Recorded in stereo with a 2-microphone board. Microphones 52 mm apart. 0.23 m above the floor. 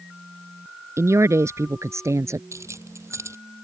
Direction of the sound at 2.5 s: 65° right (ahead or behind).